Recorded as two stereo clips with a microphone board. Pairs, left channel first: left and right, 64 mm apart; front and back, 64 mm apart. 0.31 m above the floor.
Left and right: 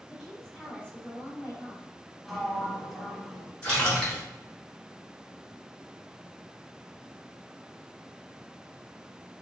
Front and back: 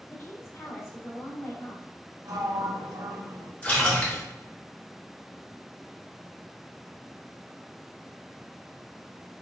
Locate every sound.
0.1 s a woman speaking: straight ahead, 1.6 m; by 1.9 s 35° left, 2.0 m
2.2 s a sliding door: straight behind, 0.8 m
3.6 s a splash: 40° left, 1.6 m